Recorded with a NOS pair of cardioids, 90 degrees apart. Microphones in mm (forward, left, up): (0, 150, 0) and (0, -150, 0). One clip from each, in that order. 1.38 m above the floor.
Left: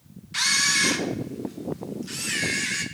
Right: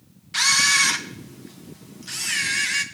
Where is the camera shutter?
20° right, 1.3 m.